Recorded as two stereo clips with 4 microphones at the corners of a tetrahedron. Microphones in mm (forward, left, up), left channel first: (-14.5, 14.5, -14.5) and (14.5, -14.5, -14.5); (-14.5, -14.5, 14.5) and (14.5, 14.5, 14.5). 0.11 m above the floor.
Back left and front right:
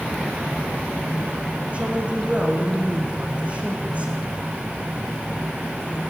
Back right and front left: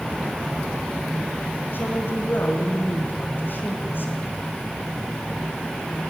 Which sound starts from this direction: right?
A woman speaking, at 1.7 s.